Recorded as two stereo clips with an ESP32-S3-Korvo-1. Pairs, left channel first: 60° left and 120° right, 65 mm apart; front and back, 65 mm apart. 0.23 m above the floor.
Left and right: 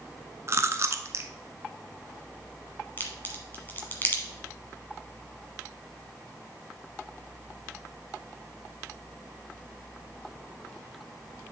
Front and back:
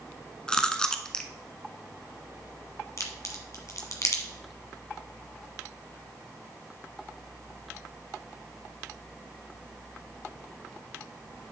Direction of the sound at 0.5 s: 75° right.